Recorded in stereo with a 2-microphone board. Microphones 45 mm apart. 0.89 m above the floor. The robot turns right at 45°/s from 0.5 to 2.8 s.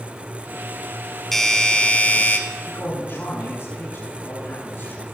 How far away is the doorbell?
About 2 m.